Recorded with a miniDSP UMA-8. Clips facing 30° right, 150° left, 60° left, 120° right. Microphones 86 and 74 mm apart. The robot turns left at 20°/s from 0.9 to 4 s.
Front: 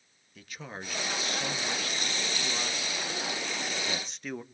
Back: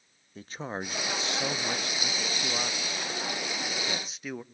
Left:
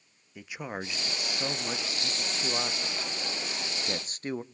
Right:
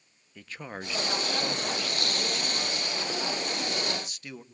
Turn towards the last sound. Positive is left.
turn(degrees=70)